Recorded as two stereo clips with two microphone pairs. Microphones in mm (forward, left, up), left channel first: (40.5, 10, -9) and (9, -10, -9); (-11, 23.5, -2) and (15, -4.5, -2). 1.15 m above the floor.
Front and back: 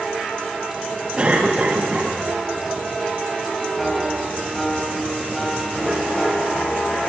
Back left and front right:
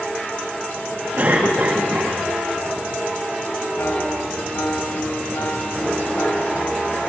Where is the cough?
90° right, 9.5 m.